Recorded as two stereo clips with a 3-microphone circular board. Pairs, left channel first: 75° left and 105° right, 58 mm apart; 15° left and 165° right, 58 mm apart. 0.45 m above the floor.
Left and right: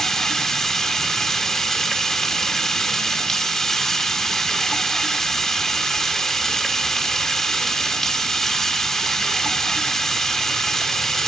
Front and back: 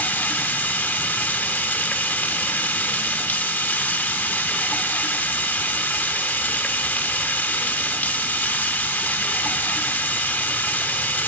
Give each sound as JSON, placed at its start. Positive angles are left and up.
{"t": 0.0, "sound": "running water", "azimuth_deg": 0, "distance_m": 0.8}